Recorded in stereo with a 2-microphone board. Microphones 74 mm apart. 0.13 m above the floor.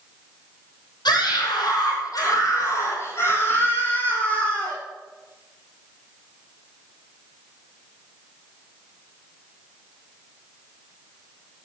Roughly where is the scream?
Left.